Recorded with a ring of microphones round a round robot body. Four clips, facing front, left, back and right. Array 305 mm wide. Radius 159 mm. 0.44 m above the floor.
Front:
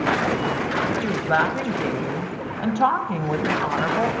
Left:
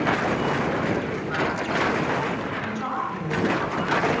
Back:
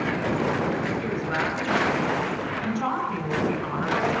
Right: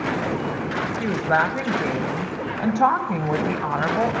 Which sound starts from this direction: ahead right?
A woman speaking, at 1.0 s.